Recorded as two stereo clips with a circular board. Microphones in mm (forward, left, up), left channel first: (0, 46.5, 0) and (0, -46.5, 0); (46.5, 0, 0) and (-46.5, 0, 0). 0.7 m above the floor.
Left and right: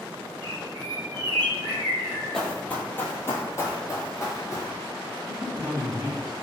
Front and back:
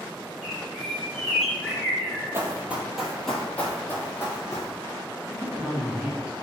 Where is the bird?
85° right, 1.1 m.